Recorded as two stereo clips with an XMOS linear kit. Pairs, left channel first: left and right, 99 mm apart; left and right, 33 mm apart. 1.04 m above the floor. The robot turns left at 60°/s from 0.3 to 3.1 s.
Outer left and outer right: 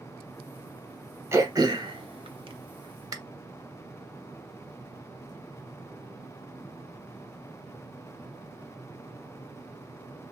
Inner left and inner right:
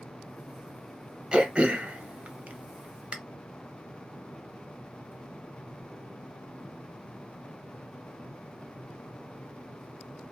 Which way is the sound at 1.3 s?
25° right (ahead or behind).